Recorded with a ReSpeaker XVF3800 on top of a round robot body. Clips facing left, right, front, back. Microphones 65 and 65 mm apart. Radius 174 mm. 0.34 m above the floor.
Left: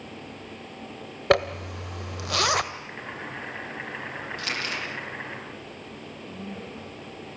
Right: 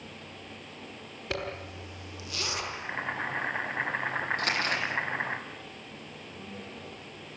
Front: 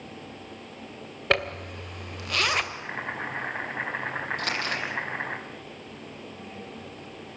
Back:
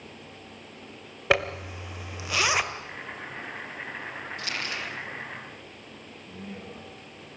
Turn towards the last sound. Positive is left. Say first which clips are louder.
# left 6 dB, even
turn(degrees=130)